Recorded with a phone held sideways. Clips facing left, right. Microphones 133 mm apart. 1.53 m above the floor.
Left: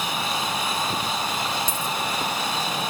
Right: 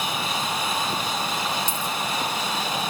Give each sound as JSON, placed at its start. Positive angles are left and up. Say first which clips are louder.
{"t": 1.7, "sound": "a dropped coin", "louder": "left 1 dB", "side_deg": 45, "distance_m": 2.0}